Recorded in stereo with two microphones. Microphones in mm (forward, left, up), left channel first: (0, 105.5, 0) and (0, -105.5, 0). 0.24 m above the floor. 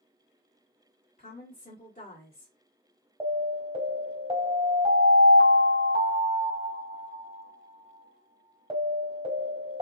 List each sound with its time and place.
1.2 s a woman speaking: 40° left (ahead or behind), 2.0 m
3.2 s an alarm: 25° right (ahead or behind), 1.4 m